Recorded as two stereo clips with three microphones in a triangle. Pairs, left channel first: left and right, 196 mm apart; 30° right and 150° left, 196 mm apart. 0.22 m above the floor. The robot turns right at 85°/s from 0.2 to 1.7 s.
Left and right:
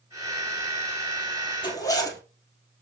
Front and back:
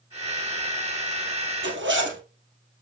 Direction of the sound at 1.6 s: 155° left.